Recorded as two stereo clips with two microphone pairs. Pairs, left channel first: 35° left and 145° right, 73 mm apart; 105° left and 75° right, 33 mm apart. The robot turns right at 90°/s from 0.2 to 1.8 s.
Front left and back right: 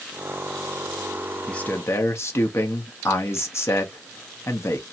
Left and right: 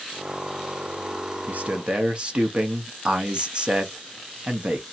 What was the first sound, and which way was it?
A man speaking, 50° right.